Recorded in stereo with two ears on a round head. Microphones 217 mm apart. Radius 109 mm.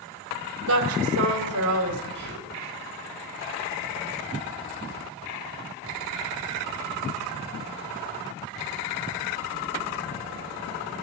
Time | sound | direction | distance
0.7 | a woman speaking | 65° right (ahead or behind) | 3 m
2.1 | whispering | 55° right (ahead or behind) | 5.5 m